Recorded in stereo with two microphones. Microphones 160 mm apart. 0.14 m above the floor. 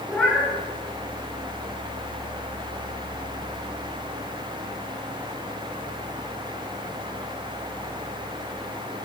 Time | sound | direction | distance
0.1 | a cat meowing | 5° left (ahead or behind) | 5.5 m